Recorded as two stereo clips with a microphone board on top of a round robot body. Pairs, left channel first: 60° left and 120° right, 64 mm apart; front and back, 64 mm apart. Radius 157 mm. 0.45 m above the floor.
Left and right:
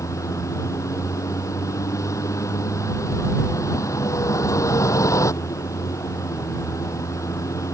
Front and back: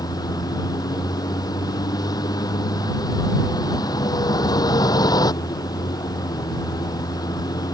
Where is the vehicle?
20° left.